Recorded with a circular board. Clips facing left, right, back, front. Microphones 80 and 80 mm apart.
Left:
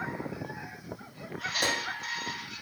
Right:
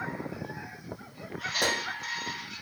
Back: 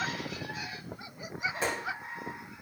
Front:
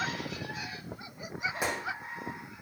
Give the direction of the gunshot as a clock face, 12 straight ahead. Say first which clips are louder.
Right 2 dB, back 1 dB; 3 o'clock.